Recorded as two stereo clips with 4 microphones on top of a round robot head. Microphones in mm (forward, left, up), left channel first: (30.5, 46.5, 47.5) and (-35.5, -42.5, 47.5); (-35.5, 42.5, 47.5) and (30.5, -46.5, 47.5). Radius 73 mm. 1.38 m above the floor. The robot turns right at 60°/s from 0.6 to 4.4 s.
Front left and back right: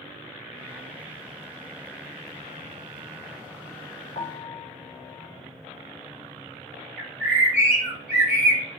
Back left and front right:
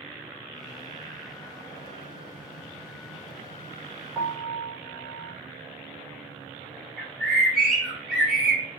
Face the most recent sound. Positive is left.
turn(degrees=-140)